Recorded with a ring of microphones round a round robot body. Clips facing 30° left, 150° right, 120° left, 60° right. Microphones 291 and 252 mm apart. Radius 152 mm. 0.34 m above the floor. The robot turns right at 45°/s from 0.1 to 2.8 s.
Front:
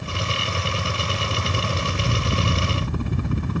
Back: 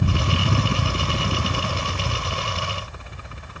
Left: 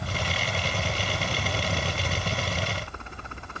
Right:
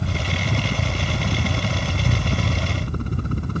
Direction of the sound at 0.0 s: 130° right.